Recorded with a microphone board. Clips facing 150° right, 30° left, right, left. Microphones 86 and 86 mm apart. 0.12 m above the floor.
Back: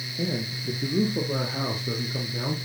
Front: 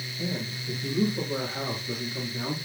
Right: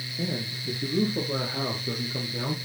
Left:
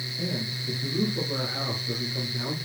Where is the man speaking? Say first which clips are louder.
Back 4 dB, right 1 dB; 150° right, 3 m; by 2.5 s 135° right, 4 m.